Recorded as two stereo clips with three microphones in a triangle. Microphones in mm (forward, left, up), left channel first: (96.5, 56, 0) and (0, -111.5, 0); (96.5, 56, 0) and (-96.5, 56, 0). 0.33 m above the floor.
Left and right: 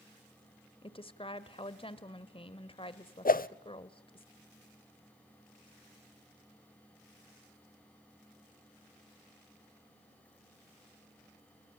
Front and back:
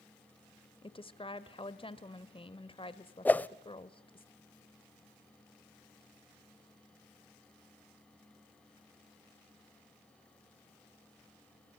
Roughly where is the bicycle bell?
No bicycle bell in this recording.